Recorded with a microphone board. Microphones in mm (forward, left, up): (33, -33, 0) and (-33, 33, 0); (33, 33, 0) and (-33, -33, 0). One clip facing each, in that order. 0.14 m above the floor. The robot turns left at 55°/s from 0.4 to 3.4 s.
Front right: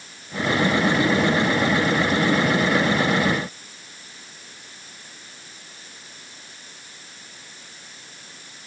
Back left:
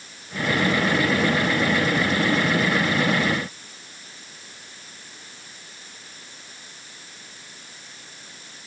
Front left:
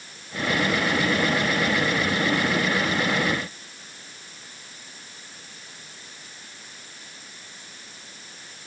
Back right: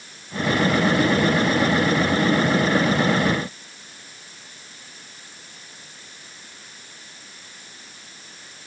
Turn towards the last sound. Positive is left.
No sound to turn to.